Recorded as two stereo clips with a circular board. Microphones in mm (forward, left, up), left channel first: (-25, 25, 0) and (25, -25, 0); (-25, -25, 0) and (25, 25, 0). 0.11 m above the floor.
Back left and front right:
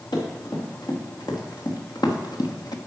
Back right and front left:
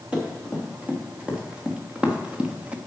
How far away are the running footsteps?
About 5 m.